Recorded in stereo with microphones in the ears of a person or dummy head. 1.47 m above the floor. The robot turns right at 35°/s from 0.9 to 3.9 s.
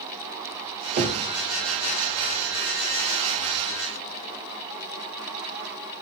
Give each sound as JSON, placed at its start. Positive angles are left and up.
{"t": 1.0, "sound": "knocking", "side_deg": -40, "distance_m": 0.7}